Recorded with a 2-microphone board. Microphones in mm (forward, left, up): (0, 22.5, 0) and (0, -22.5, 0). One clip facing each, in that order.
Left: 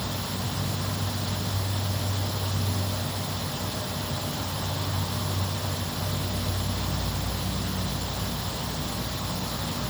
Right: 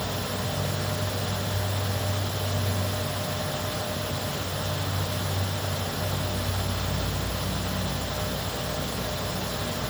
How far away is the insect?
About 1.5 m.